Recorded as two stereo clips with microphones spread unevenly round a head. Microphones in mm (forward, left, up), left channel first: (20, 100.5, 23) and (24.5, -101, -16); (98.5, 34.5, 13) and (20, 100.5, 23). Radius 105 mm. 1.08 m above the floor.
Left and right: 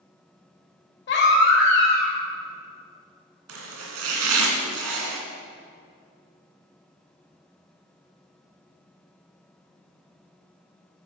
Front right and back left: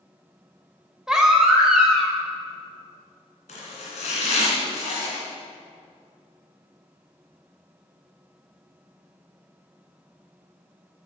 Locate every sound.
1.1 s a baby crying: 55° left, 2.5 m
3.5 s chopping: 80° right, 2 m